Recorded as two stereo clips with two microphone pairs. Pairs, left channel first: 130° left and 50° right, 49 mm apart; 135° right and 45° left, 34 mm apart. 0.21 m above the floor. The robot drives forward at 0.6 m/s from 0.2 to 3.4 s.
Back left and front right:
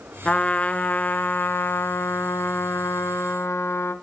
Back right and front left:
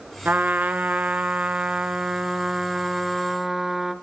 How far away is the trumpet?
About 2.0 m.